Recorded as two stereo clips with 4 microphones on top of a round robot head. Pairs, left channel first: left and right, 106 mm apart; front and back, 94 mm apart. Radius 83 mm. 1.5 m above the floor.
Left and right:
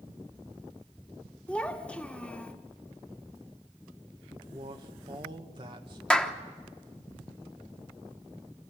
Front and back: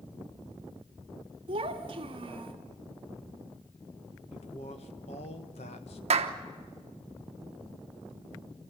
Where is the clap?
170° left, 1.0 m.